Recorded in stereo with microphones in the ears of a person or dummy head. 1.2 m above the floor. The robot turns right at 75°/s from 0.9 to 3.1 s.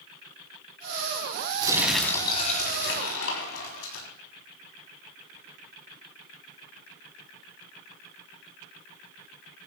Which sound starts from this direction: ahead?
Crumpling, at 1.6 s.